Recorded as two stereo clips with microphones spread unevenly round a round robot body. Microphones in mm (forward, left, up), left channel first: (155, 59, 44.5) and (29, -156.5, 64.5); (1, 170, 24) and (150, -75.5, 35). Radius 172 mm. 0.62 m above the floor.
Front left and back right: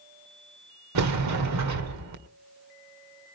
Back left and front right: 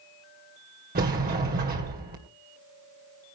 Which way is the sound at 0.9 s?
125° right.